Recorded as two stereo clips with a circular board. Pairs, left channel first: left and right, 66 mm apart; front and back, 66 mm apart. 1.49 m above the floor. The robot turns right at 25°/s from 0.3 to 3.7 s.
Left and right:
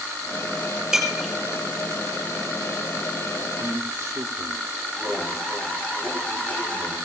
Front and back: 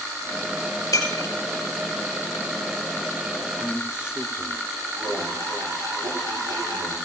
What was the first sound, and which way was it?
Breaking glass, 10° right.